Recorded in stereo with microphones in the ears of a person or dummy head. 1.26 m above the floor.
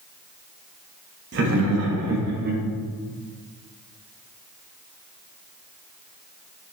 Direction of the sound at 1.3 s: 60° right (ahead or behind).